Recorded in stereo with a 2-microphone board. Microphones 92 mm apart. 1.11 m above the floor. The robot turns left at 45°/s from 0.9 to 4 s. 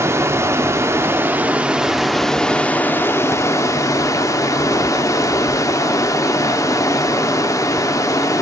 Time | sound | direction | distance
0.0 | running water | 125° right | 0.7 m